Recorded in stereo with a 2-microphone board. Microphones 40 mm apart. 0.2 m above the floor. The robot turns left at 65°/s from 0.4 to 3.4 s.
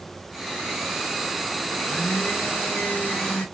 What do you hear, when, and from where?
1.7 s a blender: 150° left, 3.5 m; by 3.5 s 40° left, 3.5 m